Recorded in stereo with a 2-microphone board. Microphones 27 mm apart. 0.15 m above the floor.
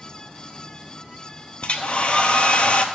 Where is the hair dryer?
45° left (ahead or behind), 0.8 m.